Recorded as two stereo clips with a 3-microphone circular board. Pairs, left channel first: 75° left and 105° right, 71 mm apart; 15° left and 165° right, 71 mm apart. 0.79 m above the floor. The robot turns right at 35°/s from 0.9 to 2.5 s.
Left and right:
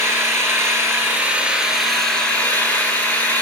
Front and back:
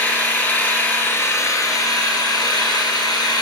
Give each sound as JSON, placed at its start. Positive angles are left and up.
{"t": 0.0, "sound": "an engine running", "azimuth_deg": -50, "distance_m": 3.5}